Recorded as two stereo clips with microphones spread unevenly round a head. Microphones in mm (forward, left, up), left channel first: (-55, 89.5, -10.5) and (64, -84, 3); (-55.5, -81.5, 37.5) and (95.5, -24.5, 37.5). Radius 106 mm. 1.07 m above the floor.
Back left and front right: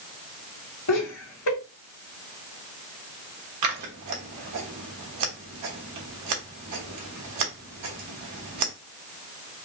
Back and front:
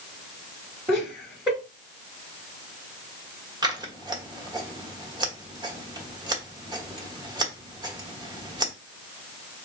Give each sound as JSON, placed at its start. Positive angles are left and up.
{"t": 0.9, "sound": "laughter", "azimuth_deg": 100, "distance_m": 1.9}
{"t": 3.6, "sound": "scissors", "azimuth_deg": -45, "distance_m": 1.2}